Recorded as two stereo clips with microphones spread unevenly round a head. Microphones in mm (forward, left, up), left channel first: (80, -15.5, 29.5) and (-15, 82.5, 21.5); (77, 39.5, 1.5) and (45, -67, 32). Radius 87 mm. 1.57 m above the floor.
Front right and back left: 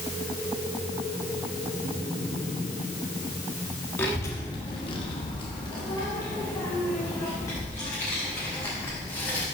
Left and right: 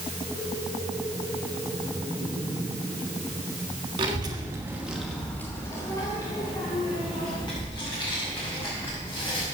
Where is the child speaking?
120° right, 1.4 m; by 9.4 s 25° left, 5 m.